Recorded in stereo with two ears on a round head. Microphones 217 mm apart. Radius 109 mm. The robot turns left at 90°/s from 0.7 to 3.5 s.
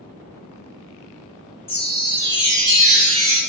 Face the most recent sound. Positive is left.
turn(degrees=-145)